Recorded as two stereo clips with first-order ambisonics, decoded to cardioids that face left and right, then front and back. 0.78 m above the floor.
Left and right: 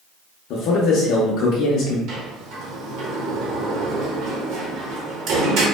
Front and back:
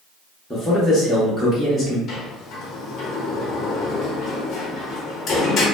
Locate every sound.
0.5 s a man speaking: 90° left, 0.6 m
2.1 s a sliding door: 55° right, 0.6 m